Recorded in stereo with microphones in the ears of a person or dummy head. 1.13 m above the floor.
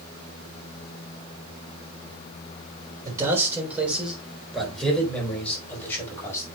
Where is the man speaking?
15° right (ahead or behind), 3.5 m; by 6.5 s 15° left (ahead or behind), 5.5 m.